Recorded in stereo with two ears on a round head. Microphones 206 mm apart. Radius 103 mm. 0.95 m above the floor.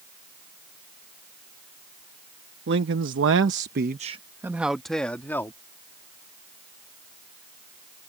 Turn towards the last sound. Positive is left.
turn(degrees=10)  # may be behind; listen again after turning